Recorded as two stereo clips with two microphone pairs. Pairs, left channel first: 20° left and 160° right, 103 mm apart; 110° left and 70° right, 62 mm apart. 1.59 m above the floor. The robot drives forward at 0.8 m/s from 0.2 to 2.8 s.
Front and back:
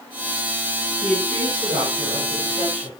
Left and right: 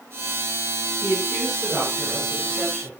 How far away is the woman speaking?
About 6.5 m.